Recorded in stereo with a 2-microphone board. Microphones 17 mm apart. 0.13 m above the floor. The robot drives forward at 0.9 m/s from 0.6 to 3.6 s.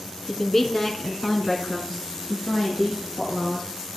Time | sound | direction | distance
0.3 | a woman speaking | 10° left (ahead or behind) | 1.5 m